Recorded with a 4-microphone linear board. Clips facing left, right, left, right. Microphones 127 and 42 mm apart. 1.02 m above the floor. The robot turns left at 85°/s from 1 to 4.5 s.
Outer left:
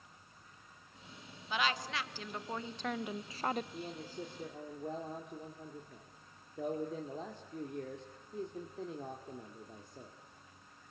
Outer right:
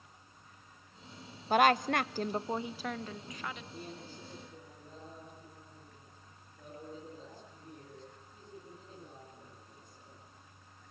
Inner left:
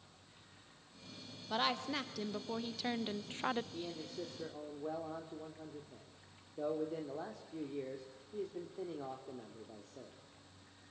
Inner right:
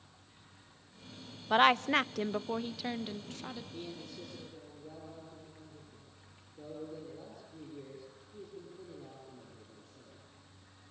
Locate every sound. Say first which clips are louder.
1.5 s a woman speaking: outer right 10 dB, inner right 11 dB; 60° right, 0.7 m; by 3.6 s 115° left, 0.7 m
3.7 s a man speaking: outer left 3 dB, inner left 1 dB; 175° left, 2.5 m; by 10.1 s 110° left, 2.5 m